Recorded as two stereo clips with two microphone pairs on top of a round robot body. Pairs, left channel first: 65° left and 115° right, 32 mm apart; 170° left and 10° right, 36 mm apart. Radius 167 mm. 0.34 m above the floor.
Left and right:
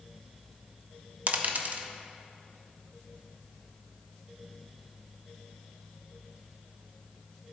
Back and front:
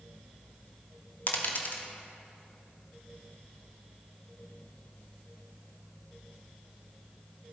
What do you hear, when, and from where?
1.3 s a dropped coin: 150° right, 0.9 m